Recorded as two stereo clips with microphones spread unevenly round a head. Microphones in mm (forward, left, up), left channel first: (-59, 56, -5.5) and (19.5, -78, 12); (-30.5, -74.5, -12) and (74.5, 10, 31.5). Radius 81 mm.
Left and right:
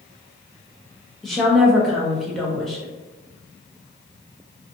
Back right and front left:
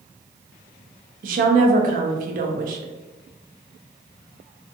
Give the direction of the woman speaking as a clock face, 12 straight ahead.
11 o'clock.